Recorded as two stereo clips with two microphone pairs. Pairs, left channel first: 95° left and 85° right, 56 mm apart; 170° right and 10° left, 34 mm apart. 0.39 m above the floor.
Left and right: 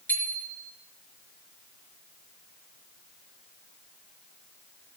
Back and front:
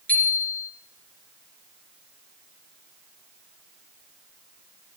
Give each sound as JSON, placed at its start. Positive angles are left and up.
{"t": 0.1, "sound": "a bicycle bell", "azimuth_deg": 150, "distance_m": 4.0}